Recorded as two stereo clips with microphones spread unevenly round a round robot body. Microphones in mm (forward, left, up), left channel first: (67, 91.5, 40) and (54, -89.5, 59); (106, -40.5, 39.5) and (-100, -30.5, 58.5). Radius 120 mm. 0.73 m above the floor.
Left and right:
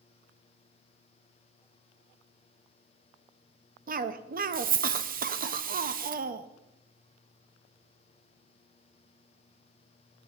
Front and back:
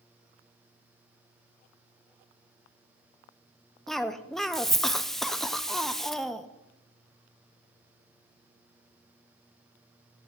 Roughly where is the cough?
Right.